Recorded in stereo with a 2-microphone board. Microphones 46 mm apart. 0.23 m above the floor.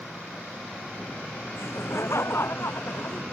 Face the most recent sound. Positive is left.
turn(degrees=65)  # may be behind; listen again after turning